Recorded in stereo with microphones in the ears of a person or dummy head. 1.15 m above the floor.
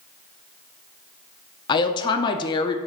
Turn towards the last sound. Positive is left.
turn(degrees=25)  # may be behind; listen again after turning